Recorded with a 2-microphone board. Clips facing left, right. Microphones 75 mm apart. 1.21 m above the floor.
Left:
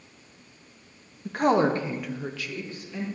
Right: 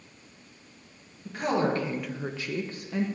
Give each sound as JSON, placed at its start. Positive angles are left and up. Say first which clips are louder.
{"t": 1.2, "sound": "a woman speaking", "louder": "left 5 dB", "side_deg": 50, "distance_m": 1.6}